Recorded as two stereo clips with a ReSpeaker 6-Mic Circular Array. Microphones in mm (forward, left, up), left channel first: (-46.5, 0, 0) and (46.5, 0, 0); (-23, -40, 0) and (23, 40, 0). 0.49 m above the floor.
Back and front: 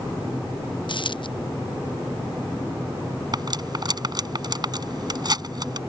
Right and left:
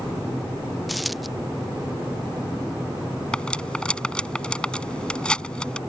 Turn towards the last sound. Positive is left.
turn(degrees=-40)